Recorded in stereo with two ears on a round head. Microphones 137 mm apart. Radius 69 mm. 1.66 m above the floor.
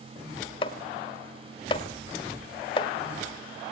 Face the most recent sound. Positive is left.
turn(degrees=35)  # may be behind; listen again after turning